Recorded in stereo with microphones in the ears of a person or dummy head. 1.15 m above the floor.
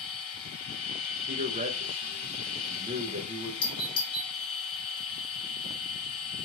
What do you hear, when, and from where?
0.0 s a machine running: 45° left (ahead or behind), 2.5 m
1.3 s a man speaking: 35° right (ahead or behind), 0.7 m
3.6 s a doorbell: 25° left (ahead or behind), 0.8 m